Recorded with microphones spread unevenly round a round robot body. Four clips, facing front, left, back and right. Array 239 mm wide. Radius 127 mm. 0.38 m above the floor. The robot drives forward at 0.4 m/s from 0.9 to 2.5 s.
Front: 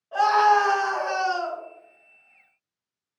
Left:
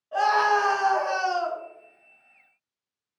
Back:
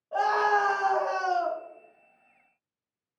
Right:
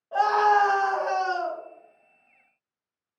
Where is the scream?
140° right, 1.5 m; by 1.6 s 145° right, 1.7 m.